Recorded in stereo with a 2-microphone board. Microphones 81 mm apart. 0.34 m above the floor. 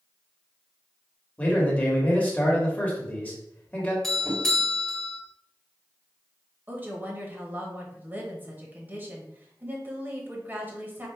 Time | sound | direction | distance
1.4 | a man speaking | 20° left (ahead or behind) | 1.3 m
4.0 | a doorbell | 5° left (ahead or behind) | 1.5 m
6.7 | a woman speaking | 25° right (ahead or behind) | 1.1 m